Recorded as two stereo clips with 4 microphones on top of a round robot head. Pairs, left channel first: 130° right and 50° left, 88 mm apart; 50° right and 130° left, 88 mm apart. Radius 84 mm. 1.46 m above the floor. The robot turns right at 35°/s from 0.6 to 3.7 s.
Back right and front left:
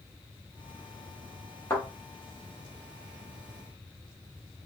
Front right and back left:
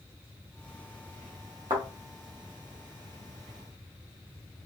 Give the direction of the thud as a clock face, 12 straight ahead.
6 o'clock.